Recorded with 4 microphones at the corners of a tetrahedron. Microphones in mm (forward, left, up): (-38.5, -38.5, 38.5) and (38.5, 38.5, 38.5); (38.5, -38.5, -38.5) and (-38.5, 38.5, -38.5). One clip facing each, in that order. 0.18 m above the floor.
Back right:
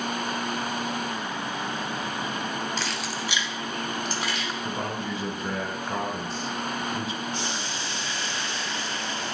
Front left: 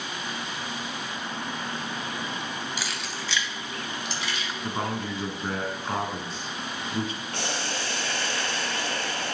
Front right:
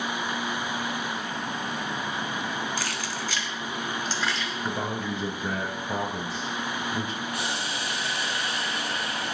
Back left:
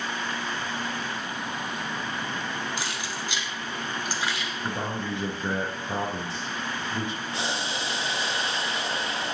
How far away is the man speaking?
About 2.5 m.